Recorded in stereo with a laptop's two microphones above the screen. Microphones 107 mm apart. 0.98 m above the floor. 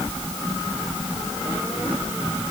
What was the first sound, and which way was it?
Only background noise.